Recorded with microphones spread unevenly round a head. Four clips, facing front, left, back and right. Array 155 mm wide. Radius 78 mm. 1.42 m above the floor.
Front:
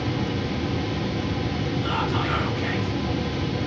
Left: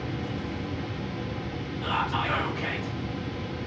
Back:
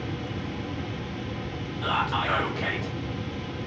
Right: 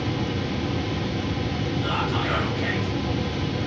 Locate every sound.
1.8 s whispering: 165° right, 0.5 m